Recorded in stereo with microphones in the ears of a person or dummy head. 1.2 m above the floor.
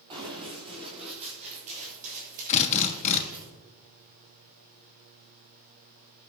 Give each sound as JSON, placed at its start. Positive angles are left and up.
{"t": 0.1, "sound": "running footsteps", "side_deg": -25, "distance_m": 5.5}
{"t": 2.5, "sound": "a drill", "side_deg": 40, "distance_m": 1.4}